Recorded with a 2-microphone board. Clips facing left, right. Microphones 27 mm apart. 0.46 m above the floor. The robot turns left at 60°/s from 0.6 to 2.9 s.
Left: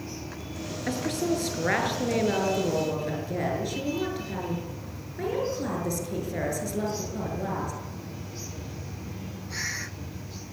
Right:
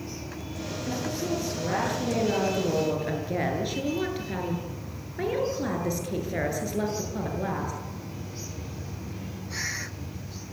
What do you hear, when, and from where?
0.9 s a woman speaking: 105° left, 7.5 m; by 7.7 s 20° right, 7.5 m